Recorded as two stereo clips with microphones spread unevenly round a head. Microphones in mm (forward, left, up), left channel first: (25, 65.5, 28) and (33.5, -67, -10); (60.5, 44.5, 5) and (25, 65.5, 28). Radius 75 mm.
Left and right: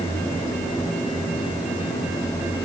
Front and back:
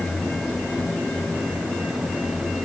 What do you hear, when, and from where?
Only background noise.